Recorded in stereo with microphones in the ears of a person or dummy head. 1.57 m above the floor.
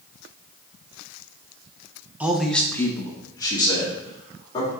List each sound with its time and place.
2.2 s a man speaking: 10° right (ahead or behind), 0.9 m; by 4.7 s 30° left (ahead or behind), 3 m